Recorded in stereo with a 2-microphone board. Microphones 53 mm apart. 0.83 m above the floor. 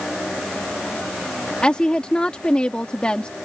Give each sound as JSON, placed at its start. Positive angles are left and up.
{"t": 1.6, "sound": "a woman speaking", "side_deg": 20}